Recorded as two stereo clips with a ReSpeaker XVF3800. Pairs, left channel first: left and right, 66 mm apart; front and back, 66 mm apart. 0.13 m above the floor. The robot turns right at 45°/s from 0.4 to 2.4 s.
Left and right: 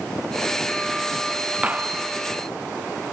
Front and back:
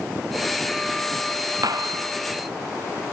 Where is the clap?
160° right; by 2.0 s 140° right.